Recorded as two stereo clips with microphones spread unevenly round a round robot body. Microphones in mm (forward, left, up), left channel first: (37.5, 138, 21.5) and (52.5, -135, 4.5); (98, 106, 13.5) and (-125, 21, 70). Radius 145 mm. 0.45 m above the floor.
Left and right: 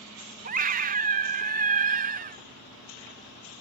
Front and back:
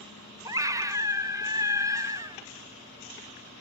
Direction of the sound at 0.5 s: 70° right.